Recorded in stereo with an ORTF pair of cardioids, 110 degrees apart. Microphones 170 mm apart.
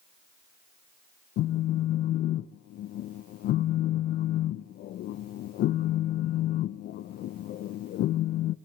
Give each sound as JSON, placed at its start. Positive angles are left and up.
{"t": 1.4, "sound": "a phone buzzing", "azimuth_deg": 70, "distance_m": 1.2}